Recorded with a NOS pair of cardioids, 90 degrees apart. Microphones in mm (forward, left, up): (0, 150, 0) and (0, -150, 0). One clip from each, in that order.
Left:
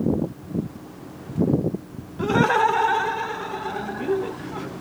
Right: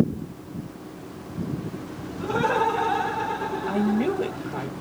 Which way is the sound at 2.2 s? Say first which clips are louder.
Left 4 dB; 70° left.